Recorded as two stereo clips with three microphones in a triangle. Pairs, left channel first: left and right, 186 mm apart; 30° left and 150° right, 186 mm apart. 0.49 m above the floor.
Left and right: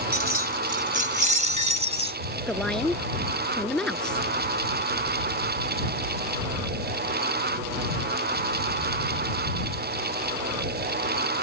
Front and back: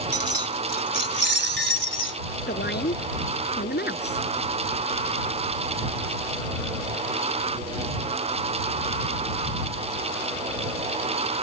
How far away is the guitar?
I don't hear a guitar.